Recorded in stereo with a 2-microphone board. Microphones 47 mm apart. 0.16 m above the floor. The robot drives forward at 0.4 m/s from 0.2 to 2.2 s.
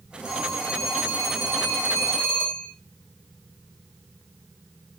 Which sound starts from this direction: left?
A phone ringing, at 0.2 s.